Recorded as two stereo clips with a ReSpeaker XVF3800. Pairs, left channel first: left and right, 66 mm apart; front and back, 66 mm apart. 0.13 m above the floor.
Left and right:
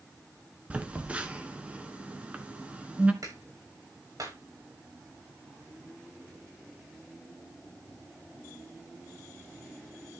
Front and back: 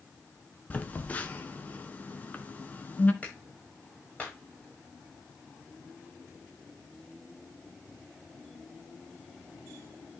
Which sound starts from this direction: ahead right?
A phone buzzing, at 0.7 s.